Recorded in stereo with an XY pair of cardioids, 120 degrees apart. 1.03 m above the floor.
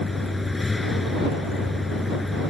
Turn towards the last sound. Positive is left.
turn(degrees=15)